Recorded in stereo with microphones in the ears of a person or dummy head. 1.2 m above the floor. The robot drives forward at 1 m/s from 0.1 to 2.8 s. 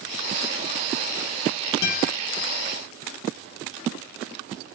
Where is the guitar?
75° left (ahead or behind), 3.5 m; by 2.1 s 80° left, 3.5 m.